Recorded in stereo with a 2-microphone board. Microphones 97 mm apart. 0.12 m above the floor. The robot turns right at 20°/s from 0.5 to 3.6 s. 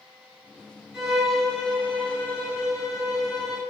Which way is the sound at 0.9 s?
10° right.